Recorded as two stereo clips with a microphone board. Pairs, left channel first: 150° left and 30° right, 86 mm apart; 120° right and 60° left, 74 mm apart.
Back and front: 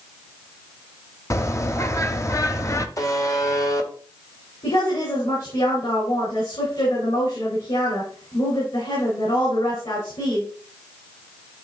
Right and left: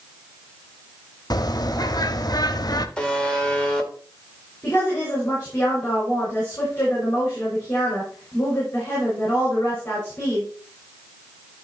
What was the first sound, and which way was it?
A bird, 155° right.